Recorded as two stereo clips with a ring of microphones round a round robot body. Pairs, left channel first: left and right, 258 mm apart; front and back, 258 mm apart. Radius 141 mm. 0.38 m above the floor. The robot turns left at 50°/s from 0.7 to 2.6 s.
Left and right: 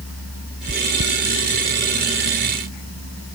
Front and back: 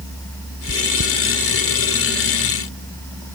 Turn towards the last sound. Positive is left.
turn(degrees=-125)